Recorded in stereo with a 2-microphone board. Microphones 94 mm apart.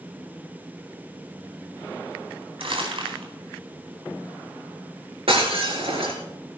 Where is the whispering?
I don't hear whispering.